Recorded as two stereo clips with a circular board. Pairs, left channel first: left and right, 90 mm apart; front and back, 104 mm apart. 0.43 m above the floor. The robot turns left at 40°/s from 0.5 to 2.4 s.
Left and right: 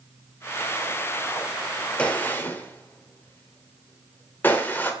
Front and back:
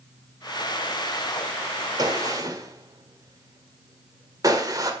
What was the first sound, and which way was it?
A gunshot, 160° left.